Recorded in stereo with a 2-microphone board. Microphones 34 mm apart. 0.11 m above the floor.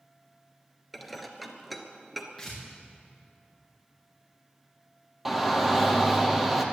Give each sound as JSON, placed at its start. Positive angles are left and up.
{"t": 0.9, "sound": "dishes clattering", "side_deg": 0, "distance_m": 1.2}
{"t": 2.4, "sound": "tearing paper", "side_deg": 5, "distance_m": 6.0}
{"t": 5.2, "sound": "a shout", "side_deg": -5, "distance_m": 2.5}